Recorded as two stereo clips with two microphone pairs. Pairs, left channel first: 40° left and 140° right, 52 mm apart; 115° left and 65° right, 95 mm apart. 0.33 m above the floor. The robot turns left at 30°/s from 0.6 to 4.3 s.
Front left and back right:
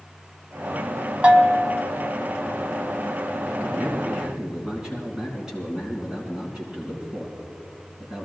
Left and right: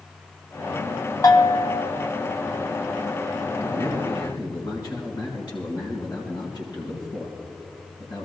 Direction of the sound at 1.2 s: 160° left.